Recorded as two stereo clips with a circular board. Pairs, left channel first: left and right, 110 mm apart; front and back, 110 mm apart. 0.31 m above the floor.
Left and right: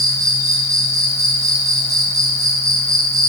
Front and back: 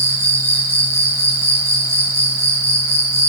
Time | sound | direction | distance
0.0 | an insect | 125° right | 0.9 m